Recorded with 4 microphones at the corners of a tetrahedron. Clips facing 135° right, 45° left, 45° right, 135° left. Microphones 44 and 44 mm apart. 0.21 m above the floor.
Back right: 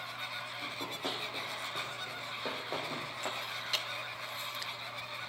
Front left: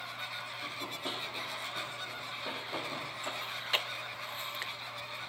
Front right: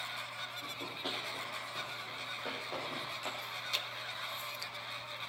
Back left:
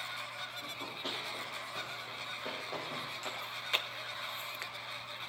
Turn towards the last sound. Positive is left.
turn(degrees=95)